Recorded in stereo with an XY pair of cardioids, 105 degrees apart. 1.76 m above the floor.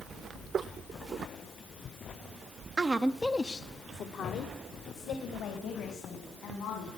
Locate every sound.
2.8 s a woman speaking: 35° right, 0.8 m; by 6.9 s 80° left, 4 m